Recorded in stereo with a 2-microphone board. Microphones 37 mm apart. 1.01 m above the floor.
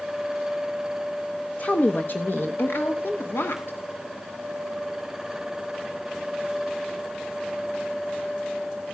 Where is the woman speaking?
40° left (ahead or behind), 0.8 m; by 3.8 s 85° left, 1.8 m.